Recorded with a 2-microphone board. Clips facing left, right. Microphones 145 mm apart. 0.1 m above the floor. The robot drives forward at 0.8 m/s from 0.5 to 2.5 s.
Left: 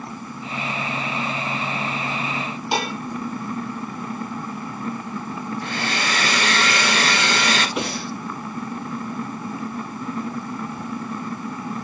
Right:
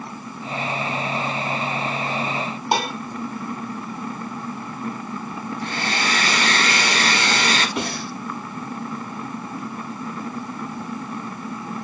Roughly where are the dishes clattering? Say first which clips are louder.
Right 2 dB; right.